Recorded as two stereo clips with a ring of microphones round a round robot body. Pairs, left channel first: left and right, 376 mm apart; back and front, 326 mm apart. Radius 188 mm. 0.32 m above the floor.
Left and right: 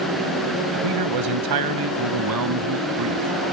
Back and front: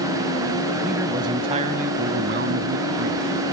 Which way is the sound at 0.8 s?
85° right.